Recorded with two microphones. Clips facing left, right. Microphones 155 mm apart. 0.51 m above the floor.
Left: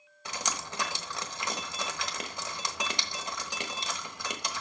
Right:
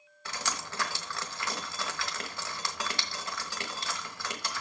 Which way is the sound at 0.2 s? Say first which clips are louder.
Left 1 dB; 20° left (ahead or behind).